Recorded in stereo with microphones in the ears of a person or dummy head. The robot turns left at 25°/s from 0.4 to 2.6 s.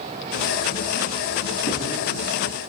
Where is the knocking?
15° left (ahead or behind), 8.5 m; by 2.0 s 25° left (ahead or behind), 8.5 m.